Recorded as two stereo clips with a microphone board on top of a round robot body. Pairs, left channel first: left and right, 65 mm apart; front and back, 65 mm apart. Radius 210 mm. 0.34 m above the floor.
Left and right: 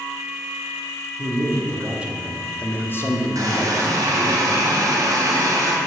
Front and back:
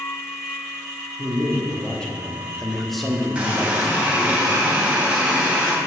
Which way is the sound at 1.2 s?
70° right.